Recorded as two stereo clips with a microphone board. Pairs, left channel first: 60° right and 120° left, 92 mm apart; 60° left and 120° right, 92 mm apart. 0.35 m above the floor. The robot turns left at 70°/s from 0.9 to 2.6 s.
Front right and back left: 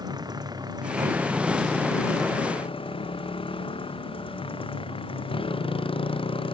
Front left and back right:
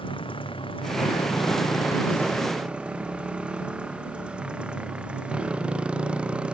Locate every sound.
0.0 s a motorcycle: 75° left; by 6.5 s 40° right